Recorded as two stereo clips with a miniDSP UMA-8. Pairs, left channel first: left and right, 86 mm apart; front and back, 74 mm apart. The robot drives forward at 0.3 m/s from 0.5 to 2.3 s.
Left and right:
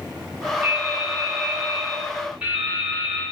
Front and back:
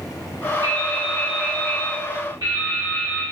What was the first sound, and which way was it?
Dripping, 160° right.